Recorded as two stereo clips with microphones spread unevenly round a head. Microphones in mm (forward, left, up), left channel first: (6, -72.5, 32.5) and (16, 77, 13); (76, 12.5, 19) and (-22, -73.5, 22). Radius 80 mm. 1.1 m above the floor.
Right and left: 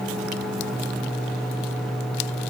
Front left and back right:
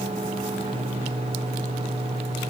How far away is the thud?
No thud in this recording.